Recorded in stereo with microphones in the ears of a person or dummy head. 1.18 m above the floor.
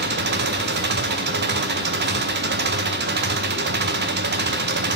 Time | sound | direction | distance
0.0 | an engine running | 50° right (ahead or behind) | 0.7 m